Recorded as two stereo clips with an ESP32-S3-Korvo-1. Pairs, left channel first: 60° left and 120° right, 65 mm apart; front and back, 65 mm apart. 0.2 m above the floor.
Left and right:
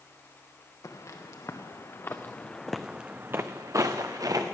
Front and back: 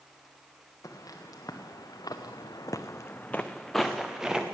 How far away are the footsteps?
About 1.9 m.